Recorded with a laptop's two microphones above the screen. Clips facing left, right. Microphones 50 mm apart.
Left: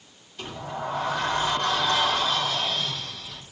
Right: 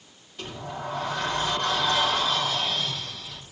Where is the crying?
No crying in this recording.